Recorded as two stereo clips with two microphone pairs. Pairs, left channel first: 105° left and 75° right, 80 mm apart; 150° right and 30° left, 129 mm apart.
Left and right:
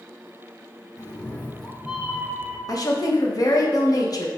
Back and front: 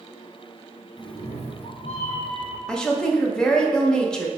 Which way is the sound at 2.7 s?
125° left.